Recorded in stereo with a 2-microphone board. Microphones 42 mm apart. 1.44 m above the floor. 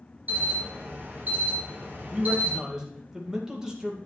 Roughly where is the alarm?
Right.